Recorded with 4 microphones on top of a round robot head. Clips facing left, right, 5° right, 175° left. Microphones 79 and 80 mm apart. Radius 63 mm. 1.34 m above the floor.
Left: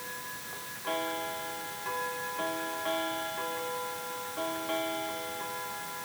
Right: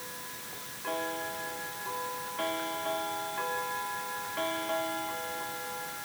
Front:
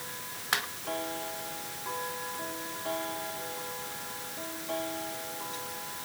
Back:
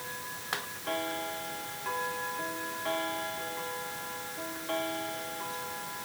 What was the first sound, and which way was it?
Only background noise.